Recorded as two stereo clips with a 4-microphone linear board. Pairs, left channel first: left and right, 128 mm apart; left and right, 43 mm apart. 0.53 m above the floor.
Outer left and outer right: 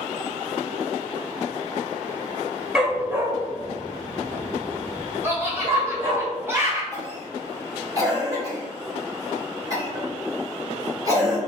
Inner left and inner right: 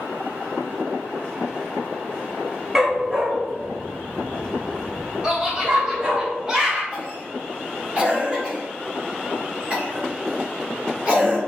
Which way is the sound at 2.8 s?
5° right (ahead or behind).